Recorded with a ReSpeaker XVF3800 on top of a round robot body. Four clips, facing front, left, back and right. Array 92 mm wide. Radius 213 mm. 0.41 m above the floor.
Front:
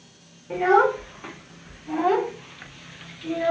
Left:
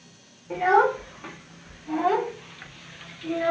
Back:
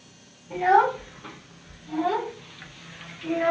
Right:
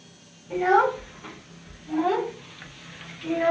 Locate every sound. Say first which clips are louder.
0.5 s a child speaking: even, front 1 dB; 30° left, 1.6 m; by 3.5 s 145° right, 0.9 m